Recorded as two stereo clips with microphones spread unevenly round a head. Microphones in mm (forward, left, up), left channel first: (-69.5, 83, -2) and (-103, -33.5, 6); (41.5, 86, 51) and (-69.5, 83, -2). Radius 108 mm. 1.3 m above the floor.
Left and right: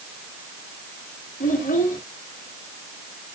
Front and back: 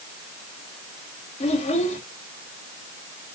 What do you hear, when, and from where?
1.4 s a child speaking: 25° left, 2 m